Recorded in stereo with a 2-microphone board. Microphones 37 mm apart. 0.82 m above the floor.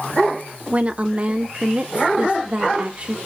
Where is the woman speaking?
35° right (ahead or behind), 0.8 m.